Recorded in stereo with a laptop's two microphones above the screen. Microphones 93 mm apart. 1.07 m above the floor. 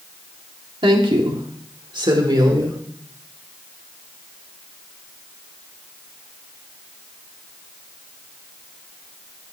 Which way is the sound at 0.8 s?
75° right (ahead or behind).